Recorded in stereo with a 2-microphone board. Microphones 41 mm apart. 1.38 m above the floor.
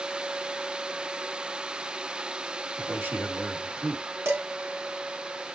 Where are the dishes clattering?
80° right, 2.5 m.